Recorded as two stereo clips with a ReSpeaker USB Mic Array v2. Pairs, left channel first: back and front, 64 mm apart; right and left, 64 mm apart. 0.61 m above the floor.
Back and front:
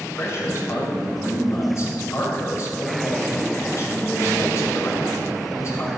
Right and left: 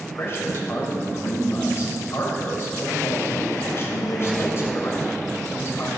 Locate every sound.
0.1 s a man speaking: 135° right, 3 m